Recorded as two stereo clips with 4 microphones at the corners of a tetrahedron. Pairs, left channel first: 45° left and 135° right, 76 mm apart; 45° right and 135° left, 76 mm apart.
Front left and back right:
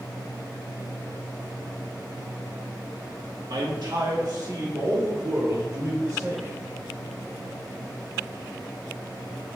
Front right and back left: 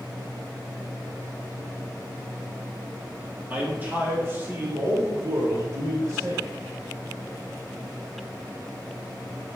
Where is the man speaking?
150° right, 2.5 m; by 6.5 s straight behind, 5 m.